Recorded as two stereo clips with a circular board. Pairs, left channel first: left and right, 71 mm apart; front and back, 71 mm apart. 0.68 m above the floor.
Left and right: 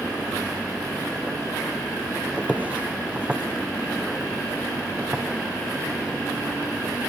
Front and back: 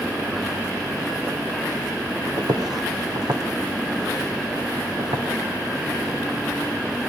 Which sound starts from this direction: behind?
Footsteps, at 2.4 s.